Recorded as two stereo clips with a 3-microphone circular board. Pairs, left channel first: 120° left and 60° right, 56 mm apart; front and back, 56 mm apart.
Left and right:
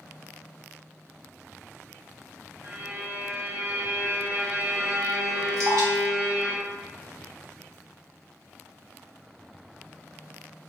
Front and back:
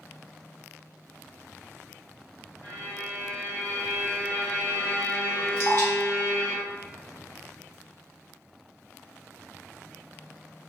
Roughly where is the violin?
Ahead right.